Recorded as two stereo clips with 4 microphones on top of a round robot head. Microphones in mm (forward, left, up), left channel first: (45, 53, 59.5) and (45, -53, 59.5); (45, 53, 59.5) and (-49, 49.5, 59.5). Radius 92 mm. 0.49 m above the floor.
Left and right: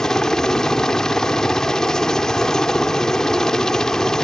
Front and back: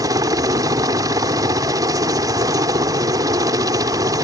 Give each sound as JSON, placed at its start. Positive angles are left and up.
{"t": 0.0, "sound": "a helicopter", "azimuth_deg": 170}